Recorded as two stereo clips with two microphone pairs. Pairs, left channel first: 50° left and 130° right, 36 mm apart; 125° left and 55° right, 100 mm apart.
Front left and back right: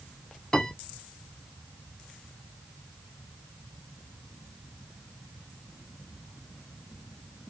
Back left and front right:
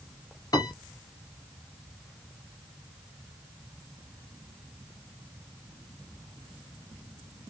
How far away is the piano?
About 1.5 m.